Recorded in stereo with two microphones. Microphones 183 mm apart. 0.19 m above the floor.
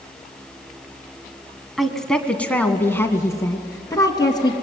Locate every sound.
1.8 s a woman speaking: centre (ahead or behind), 1.8 m; by 4.5 s 20° left (ahead or behind), 2.5 m